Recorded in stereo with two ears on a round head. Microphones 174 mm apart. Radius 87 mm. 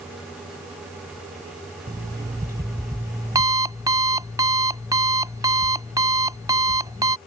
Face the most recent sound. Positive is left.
turn(degrees=-20)  # may be behind; listen again after turning